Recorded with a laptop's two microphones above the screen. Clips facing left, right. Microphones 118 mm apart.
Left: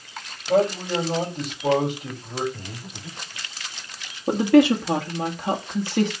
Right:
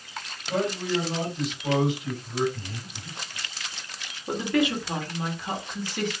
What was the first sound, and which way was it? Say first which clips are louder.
A man speaking: left 6 dB; 60° left (ahead or behind).